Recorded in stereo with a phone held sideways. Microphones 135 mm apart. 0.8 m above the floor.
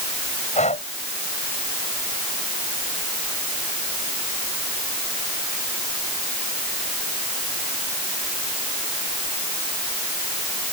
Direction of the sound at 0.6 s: 60° left (ahead or behind).